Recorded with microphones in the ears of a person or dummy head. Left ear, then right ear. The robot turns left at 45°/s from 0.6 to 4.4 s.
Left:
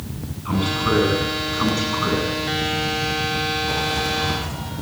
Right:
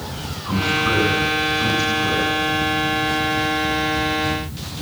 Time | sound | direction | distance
0.5 | a man speaking | straight behind | 9.5 m